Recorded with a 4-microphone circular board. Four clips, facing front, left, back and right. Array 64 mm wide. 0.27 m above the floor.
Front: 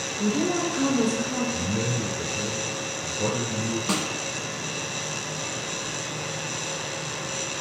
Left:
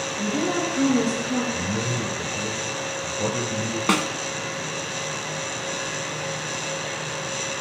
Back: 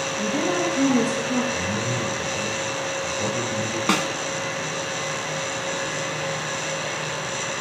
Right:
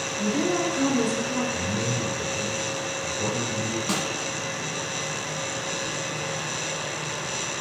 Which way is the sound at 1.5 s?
95° left.